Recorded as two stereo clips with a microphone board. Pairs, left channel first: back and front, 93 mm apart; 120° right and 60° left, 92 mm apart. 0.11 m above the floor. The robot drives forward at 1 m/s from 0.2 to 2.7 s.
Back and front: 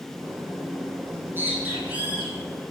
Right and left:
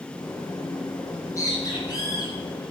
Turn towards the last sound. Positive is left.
turn(degrees=-85)